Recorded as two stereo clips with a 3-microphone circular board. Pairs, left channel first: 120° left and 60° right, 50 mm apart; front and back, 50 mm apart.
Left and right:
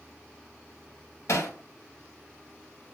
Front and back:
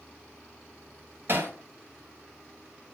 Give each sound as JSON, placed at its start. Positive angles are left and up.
{"t": 1.3, "sound": "hammering", "azimuth_deg": 135, "distance_m": 1.4}